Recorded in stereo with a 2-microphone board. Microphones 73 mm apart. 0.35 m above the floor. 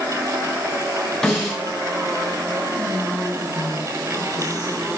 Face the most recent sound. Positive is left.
turn(degrees=-60)  # may be behind; listen again after turning